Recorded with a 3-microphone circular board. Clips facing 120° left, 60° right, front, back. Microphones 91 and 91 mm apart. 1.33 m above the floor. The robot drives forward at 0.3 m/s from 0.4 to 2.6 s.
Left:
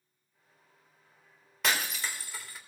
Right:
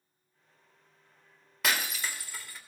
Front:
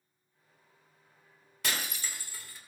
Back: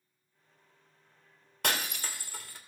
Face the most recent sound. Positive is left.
turn(degrees=-155)